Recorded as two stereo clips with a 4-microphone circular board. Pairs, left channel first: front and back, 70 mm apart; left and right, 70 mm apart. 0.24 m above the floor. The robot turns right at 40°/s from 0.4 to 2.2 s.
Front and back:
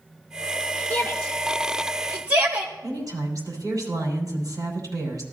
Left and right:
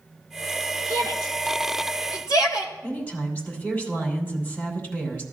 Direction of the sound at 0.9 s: 65° left.